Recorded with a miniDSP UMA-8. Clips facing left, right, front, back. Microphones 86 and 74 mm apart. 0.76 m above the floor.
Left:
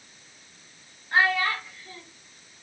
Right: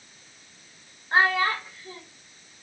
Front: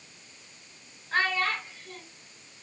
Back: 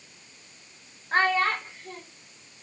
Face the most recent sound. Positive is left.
turn(degrees=-140)